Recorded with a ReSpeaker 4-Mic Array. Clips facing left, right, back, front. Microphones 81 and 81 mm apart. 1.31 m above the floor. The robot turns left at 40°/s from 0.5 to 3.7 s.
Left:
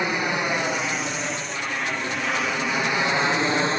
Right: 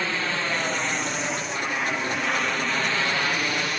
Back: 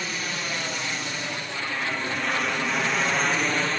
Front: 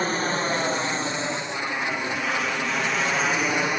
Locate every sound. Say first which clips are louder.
0.0 s an aircraft: left 3 dB, front 7 dB; 25° left; by 3.8 s 65° left